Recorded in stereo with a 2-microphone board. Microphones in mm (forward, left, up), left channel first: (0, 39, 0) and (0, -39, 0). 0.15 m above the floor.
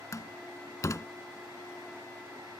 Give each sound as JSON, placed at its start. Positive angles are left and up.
{"t": 0.1, "sound": "a door slam", "side_deg": 40}